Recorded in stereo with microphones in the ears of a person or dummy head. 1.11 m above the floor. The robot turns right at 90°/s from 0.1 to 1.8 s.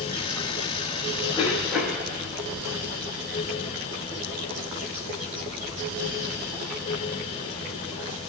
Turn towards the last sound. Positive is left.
turn(degrees=-165)